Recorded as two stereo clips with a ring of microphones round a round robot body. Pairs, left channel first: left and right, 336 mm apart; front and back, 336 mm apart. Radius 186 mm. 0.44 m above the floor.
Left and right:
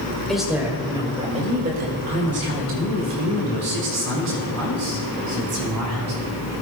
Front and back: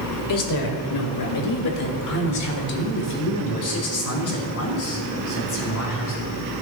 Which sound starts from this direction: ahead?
A woman speaking, at 0.3 s.